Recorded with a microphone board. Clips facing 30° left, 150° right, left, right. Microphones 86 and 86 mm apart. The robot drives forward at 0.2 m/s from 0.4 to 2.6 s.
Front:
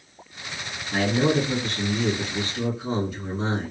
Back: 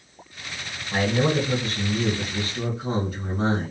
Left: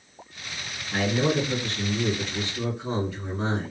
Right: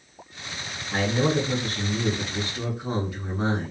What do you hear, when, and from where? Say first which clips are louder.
0.9 s a man speaking: front 1 dB, right 1 dB; 155° right, 1.7 m; by 3.7 s 160° right, 1.9 m